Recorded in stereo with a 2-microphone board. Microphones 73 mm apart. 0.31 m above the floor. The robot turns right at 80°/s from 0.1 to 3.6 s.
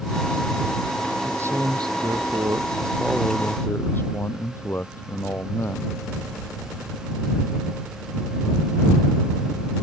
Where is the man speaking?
160° right; by 6.0 s 30° left.